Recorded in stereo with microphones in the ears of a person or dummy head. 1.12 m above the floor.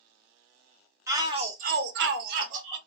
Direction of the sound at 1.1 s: 15° right (ahead or behind).